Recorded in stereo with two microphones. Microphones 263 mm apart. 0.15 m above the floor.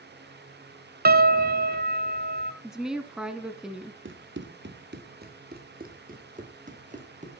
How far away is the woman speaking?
About 1.4 m.